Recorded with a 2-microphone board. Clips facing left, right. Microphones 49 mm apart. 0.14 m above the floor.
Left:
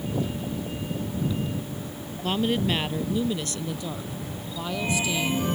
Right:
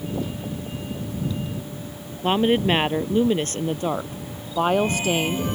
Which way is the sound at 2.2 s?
30° right (ahead or behind).